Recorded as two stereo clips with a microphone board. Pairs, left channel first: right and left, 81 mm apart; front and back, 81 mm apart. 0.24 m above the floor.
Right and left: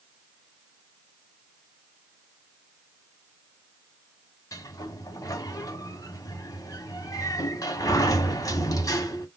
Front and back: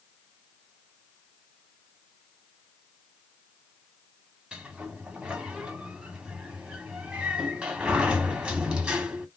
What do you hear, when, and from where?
4.5 s a sliding door: 105° right, 1.2 m